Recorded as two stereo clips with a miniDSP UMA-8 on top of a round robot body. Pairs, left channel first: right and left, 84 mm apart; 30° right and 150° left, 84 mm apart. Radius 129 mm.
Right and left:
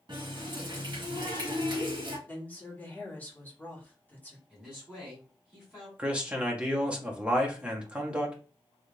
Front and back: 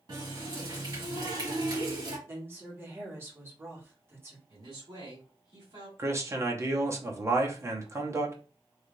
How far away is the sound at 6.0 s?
About 1.0 m.